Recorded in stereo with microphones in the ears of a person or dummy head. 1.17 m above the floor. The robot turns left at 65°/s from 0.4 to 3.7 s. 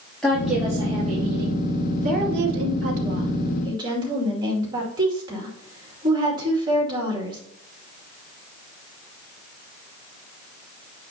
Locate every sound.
0.2 s a woman speaking: straight ahead, 2.5 m; by 1.6 s 80° right, 2.5 m
2.0 s a woman speaking: 45° right, 2.5 m; by 7.4 s 155° right, 2.5 m